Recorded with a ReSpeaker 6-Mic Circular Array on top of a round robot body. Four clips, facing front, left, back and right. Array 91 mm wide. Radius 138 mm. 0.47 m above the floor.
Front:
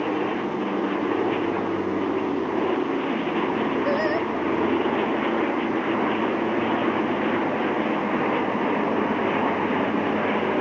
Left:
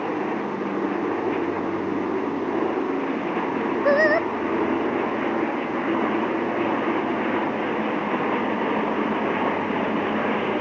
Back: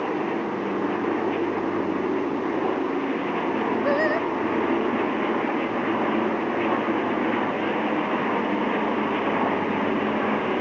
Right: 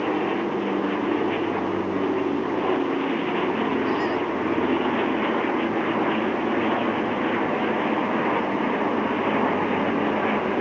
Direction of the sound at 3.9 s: 100° left.